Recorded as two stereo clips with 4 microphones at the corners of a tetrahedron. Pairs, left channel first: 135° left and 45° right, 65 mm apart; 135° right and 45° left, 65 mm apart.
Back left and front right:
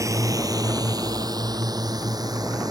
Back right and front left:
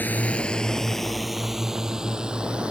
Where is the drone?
75° right; by 2.7 s 30° right.